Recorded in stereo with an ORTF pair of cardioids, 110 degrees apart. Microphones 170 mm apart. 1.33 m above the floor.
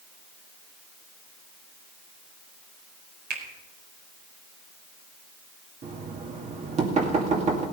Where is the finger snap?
70° right, 4 m.